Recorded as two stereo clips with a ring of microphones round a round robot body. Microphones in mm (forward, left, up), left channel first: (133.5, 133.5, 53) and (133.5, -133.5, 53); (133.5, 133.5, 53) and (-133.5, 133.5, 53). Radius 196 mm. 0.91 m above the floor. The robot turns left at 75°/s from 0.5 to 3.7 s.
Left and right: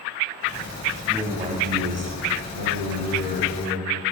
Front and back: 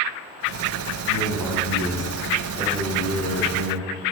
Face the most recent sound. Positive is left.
turn(degrees=165)